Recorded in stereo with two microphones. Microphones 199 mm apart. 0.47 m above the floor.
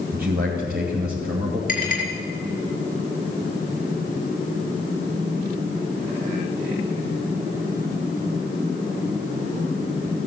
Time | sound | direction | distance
0.1 | a man speaking | 50° right (ahead or behind) | 2.5 m
1.7 | a clink | 45° left (ahead or behind) | 5 m